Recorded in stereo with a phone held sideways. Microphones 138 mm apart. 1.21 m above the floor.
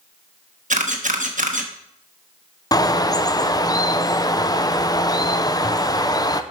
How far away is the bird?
About 0.5 m.